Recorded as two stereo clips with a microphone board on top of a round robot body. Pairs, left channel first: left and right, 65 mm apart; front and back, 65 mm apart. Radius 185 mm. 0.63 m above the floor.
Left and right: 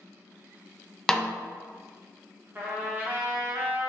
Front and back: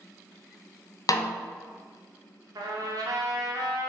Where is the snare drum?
10° left, 0.6 m.